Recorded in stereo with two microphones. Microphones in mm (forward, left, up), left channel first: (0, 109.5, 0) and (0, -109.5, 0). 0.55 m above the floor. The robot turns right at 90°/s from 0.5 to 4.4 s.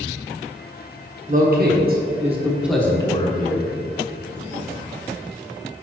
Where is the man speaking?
130° right, 1.0 m; by 3.7 s 90° left, 1.0 m.